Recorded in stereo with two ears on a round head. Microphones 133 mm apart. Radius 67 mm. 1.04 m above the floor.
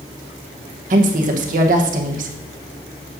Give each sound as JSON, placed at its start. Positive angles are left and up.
{"t": 0.9, "sound": "a woman speaking", "side_deg": -55, "distance_m": 0.9}